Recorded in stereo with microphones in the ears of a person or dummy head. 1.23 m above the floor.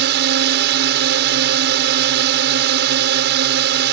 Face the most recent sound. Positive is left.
turn(degrees=-55)  # may be behind; listen again after turning